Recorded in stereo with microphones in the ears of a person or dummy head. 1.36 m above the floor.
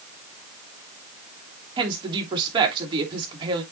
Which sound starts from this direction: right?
A woman speaking, at 1.8 s.